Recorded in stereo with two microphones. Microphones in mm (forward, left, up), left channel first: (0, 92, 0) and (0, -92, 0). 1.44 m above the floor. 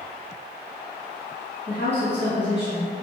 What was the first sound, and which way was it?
A woman speaking, 80° left.